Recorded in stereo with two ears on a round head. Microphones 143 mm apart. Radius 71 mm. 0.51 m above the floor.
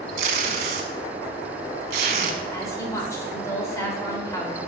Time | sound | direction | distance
0.2 | tape being pulled | 65° right (ahead or behind) | 1.1 m
2.5 | a woman speaking | 20° left (ahead or behind) | 2 m